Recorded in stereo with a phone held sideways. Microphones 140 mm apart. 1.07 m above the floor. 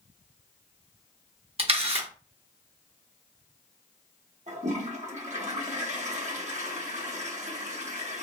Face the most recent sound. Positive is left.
turn(degrees=-55)  # may be behind; listen again after turning